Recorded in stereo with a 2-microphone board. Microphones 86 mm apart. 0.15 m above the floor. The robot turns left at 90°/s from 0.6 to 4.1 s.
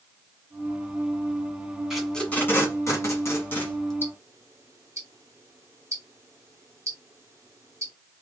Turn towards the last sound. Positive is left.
turn(degrees=-35)  # may be behind; listen again after turning